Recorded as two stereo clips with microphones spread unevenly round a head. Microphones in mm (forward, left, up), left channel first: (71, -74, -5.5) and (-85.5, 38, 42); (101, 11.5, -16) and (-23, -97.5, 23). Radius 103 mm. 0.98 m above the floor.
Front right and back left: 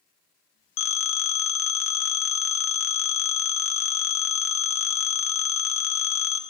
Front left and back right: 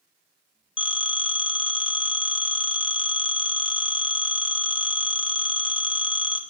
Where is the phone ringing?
20° right, 0.9 m.